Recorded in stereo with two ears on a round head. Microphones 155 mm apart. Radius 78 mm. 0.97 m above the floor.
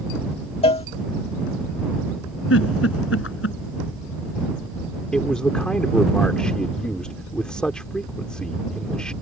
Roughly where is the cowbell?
Left.